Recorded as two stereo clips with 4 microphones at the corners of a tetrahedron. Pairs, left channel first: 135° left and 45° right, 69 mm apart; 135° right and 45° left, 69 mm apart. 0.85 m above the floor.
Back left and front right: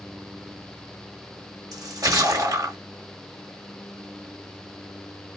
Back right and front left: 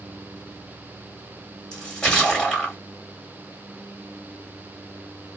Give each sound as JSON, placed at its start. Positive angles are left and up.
{"t": 1.7, "sound": "a splash", "azimuth_deg": -55, "distance_m": 2.0}